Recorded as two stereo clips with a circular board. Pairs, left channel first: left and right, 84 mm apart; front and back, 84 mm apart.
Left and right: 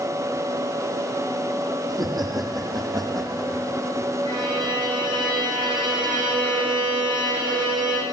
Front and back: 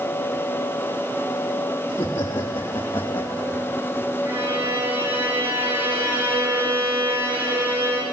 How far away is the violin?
About 6 m.